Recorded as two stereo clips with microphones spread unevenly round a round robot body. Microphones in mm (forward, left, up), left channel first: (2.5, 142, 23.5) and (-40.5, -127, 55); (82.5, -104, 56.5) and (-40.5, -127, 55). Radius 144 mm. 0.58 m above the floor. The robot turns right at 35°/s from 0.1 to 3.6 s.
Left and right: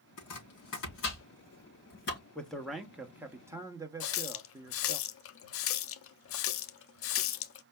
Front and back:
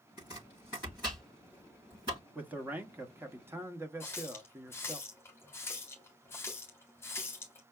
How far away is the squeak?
No squeak in this recording.